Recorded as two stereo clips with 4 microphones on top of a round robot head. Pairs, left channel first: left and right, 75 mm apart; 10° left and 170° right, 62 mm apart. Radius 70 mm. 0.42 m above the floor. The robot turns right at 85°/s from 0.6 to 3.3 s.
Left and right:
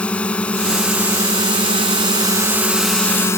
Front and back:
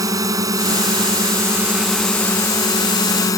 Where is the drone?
165° left; by 3.4 s 35° left.